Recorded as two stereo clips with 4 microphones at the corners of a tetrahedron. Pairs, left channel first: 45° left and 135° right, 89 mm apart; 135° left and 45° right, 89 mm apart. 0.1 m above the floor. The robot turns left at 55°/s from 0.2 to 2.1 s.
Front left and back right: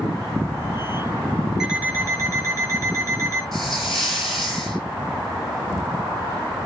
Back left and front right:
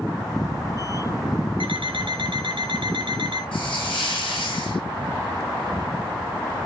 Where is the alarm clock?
50° right, 3 m; by 3.4 s 75° right, 3 m.